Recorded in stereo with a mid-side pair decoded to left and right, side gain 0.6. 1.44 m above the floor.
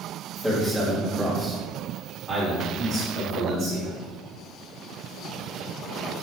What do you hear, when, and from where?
0.4 s a man speaking: 5° left, 2.5 m; by 3.9 s 55° right, 3 m